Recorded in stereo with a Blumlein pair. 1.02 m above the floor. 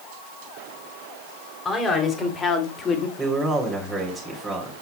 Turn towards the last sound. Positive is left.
turn(degrees=0)